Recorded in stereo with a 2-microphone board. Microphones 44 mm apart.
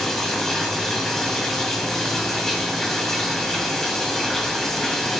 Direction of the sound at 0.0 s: 10° left (ahead or behind).